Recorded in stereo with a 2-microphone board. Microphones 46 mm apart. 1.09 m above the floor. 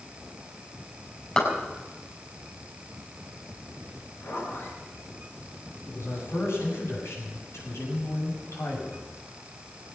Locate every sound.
1.4 s a clap: 25° left (ahead or behind), 5.5 m
4.2 s a zipper: 65° left (ahead or behind), 7 m
5.9 s a man speaking: 85° left, 7.5 m